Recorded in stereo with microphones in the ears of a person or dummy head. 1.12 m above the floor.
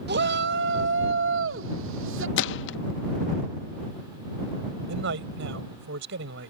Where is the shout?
55° right (ahead or behind); by 2.3 s 70° right (ahead or behind).